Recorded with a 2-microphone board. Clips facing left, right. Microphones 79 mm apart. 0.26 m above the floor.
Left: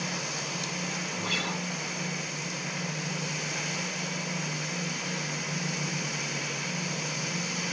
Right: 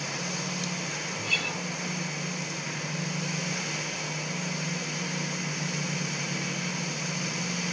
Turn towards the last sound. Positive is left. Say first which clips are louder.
# left 1 dB
turn(degrees=55)  # may be behind; listen again after turning